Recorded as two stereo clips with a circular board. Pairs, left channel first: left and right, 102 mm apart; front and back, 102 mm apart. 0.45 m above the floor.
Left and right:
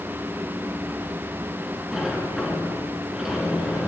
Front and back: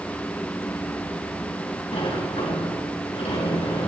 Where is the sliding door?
5° right, 4 m.